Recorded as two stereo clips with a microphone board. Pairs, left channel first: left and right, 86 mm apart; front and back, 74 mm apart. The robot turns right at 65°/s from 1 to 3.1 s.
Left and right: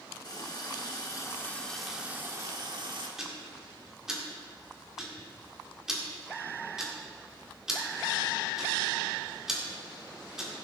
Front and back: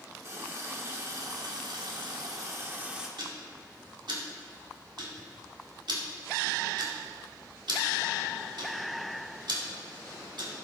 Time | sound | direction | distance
0.2 | a running tap | 130° left | 1.5 m
3.2 | ticking | 175° right | 1.9 m